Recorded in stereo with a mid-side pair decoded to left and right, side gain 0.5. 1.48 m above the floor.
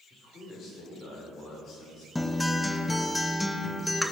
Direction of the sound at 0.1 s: 50° left.